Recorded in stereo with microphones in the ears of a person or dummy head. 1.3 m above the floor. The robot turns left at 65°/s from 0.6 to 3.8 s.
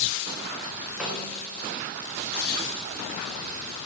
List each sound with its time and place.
1.0 s a snare drum: 5° right (ahead or behind), 2.0 m; by 1.4 s 20° left (ahead or behind), 2.0 m